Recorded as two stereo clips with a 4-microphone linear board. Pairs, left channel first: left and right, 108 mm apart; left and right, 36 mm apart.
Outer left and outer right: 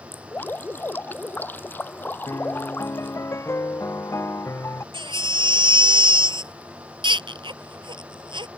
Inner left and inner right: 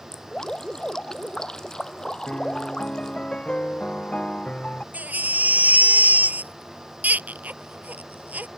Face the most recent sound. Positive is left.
turn(degrees=-50)  # may be behind; listen again after turning